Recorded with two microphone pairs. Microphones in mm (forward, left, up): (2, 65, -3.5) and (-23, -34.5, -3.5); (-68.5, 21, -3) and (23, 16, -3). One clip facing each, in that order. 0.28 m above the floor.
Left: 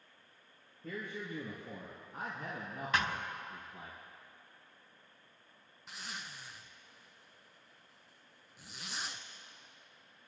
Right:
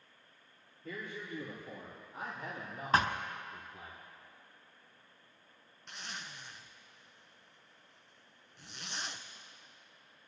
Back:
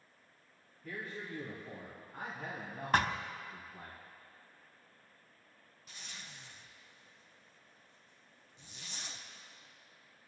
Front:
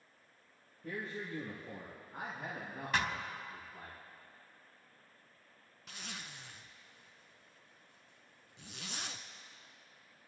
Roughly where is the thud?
Behind right.